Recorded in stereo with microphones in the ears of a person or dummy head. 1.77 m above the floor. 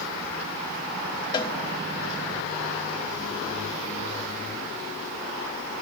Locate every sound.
1.3 s a cowbell: 30° left (ahead or behind), 1.0 m